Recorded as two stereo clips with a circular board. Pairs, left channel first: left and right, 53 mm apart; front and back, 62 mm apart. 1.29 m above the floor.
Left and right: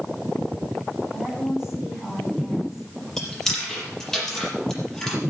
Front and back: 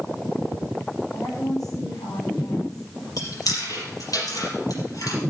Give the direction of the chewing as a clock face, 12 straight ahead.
12 o'clock.